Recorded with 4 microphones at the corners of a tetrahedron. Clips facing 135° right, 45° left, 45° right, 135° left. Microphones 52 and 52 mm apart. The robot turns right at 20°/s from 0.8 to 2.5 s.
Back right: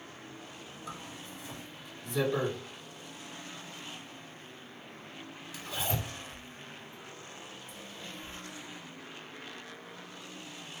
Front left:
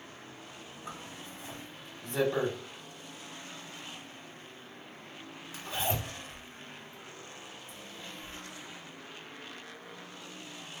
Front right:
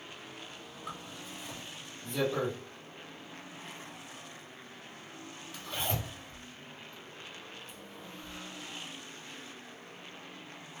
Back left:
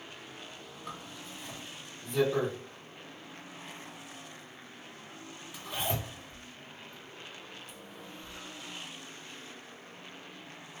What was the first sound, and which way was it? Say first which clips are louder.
A zipper: even, front right 1 dB; 30° left.